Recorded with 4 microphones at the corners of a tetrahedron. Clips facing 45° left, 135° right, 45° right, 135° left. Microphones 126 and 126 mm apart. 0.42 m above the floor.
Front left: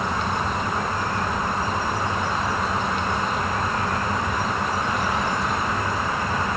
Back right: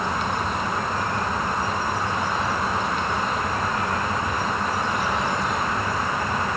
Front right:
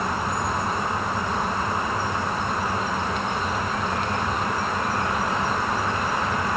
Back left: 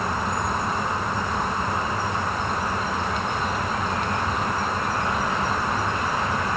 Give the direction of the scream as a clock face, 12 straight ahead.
I don't hear a scream.